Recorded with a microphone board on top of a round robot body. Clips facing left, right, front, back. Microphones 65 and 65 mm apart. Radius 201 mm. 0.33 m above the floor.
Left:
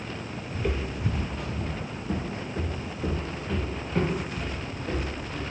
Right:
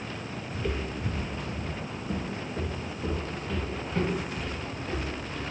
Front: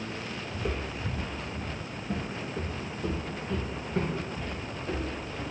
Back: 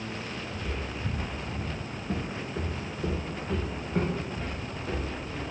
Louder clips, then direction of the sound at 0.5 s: Left 2 dB, front 2 dB; 35° left.